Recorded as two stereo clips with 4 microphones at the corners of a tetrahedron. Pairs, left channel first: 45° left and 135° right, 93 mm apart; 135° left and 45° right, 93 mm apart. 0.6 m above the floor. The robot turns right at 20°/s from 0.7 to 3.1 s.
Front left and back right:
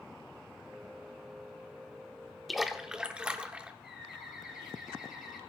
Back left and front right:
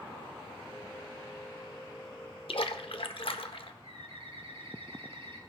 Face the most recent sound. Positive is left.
turn(degrees=-50)